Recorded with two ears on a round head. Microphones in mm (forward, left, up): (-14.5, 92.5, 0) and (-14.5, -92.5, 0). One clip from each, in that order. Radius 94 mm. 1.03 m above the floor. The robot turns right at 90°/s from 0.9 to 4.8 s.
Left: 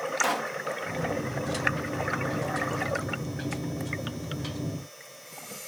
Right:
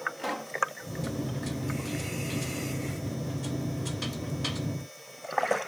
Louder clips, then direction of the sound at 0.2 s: Left 7 dB; 35° left (ahead or behind).